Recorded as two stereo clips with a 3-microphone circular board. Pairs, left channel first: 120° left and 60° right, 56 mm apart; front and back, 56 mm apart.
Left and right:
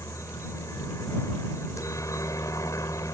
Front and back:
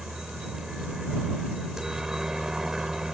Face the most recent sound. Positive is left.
turn(degrees=100)